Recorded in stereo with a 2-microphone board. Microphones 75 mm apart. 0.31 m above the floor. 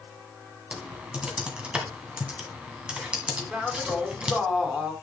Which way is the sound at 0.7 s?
15° right (ahead or behind).